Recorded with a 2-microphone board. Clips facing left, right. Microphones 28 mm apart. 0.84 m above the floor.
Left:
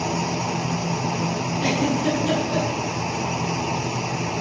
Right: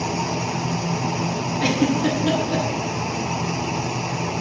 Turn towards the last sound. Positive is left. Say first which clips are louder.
# right 2 dB
turn(degrees=-35)  # may be behind; listen again after turning